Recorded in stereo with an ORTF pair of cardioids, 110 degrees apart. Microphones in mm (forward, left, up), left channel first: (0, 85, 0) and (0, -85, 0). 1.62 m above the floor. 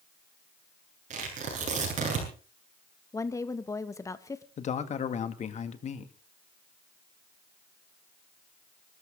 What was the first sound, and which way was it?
Tearing paper, 45° right.